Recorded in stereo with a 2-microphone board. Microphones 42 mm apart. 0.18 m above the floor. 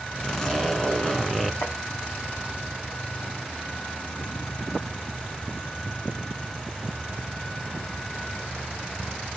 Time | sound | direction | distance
0.2 | a zipper | 10° left (ahead or behind) | 1.3 m
1.6 | chopping | 75° left (ahead or behind) | 3.5 m